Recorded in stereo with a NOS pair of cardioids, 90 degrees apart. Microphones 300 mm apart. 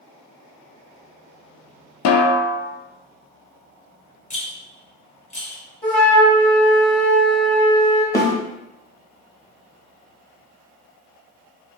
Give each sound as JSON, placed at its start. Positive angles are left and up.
{"t": 2.0, "sound": "a snare drum", "azimuth_deg": 60, "distance_m": 0.5}
{"t": 4.3, "sound": "a rattle", "azimuth_deg": 25, "distance_m": 0.9}
{"t": 5.8, "sound": "a flute", "azimuth_deg": 5, "distance_m": 0.9}
{"t": 8.1, "sound": "a snare drum", "azimuth_deg": 10, "distance_m": 0.7}